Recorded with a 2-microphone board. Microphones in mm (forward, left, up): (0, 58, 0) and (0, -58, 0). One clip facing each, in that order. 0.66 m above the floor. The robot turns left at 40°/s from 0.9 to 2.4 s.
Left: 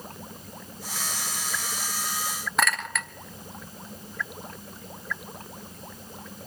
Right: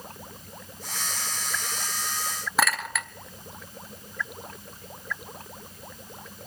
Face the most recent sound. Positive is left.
turn(degrees=-5)  # may be behind; listen again after turning